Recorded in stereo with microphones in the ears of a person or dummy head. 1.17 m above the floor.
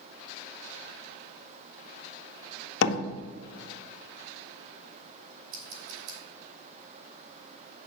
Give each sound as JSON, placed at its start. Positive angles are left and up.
{"t": 2.8, "sound": "a door slam", "side_deg": 70, "distance_m": 0.7}
{"t": 5.5, "sound": "scissors", "side_deg": -85, "distance_m": 3.5}